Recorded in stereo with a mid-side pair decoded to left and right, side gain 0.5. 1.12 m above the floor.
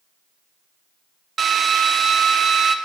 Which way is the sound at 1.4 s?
45° right.